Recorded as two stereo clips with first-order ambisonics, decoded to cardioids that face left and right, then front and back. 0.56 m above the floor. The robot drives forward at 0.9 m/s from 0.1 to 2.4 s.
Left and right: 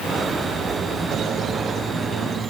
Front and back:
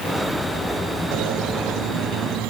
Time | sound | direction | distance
1.1 | a squeak | 150° right | 1.9 m